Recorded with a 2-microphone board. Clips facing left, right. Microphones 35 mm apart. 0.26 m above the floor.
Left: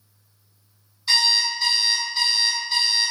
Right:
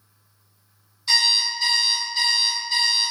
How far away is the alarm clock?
About 1.6 m.